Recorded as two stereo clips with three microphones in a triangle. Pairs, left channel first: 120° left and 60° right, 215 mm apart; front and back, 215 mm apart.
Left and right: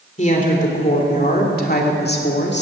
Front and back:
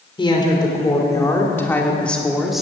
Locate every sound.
0.2 s a woman speaking: 65° left, 3 m; by 2.6 s 90° left, 2 m